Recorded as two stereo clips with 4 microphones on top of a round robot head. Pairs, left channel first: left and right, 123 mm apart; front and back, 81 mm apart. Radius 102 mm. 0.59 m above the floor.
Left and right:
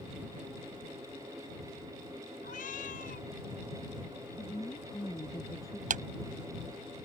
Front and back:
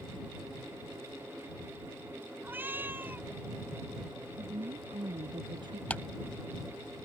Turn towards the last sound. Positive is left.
turn(degrees=-80)